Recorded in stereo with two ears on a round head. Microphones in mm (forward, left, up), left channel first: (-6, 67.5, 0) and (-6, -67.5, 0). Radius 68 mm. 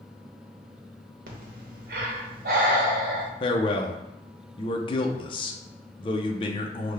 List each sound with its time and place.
1.3 s breathing: 60° right (ahead or behind), 1.0 m
3.4 s a man speaking: 35° left (ahead or behind), 0.6 m